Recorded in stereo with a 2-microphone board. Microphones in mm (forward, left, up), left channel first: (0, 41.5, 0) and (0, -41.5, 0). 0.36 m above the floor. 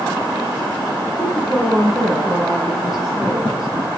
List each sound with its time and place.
1.2 s a woman speaking: 5° left (ahead or behind), 3.5 m